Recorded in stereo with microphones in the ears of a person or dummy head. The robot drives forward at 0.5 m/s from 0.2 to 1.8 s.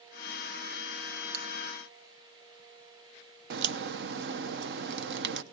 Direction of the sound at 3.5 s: 70° right (ahead or behind).